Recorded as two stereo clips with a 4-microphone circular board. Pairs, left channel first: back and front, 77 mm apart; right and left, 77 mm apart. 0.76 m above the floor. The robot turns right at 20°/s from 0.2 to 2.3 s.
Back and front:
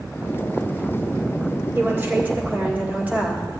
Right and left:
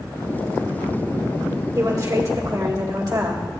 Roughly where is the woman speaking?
Ahead left.